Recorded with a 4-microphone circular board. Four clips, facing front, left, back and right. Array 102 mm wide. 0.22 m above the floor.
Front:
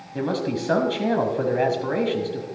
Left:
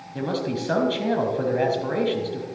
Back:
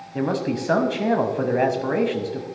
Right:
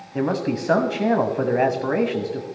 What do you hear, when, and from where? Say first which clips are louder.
0.1 s a man speaking: right 4 dB, back 1 dB; 110° right, 1.0 m